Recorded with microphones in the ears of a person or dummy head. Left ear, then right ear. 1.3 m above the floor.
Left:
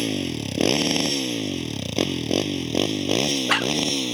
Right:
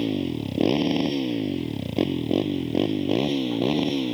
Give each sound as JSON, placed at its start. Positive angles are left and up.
{"t": 0.0, "sound": "a motorcycle", "side_deg": 60}